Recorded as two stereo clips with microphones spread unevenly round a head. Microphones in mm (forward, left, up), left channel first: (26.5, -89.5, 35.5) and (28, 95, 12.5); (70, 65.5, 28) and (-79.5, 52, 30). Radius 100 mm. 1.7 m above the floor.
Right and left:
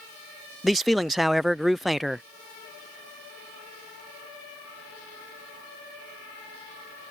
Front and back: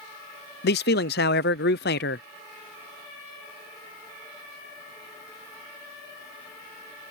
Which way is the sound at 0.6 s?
Straight ahead.